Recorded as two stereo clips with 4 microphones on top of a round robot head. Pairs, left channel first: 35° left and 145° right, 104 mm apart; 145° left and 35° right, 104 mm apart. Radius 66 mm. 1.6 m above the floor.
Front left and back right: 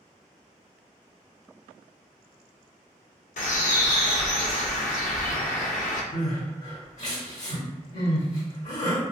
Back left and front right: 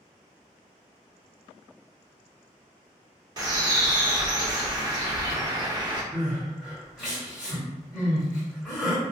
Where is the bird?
25° left, 0.5 m.